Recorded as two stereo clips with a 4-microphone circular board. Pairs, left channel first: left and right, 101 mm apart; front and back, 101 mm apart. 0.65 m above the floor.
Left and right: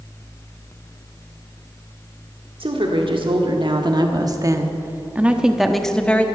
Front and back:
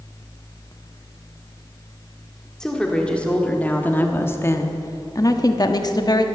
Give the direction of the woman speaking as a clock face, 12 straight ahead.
3 o'clock.